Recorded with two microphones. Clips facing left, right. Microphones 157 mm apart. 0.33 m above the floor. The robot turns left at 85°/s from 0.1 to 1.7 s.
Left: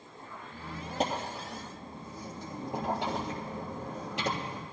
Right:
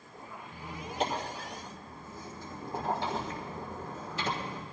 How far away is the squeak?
About 3 m.